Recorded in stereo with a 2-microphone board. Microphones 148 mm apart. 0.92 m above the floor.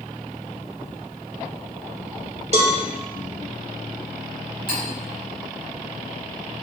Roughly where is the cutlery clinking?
Left.